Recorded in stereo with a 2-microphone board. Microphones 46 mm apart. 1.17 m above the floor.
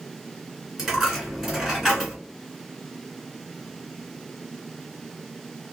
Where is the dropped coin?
10° right (ahead or behind), 1.9 m.